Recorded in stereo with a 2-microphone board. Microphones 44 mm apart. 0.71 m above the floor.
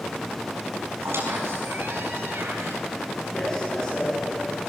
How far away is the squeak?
About 5 m.